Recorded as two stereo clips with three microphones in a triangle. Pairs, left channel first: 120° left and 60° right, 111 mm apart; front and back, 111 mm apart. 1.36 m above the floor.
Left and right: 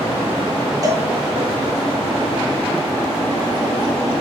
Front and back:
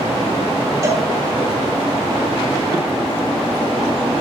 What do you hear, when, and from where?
0.8 s a cowbell: 115° right, 1.6 m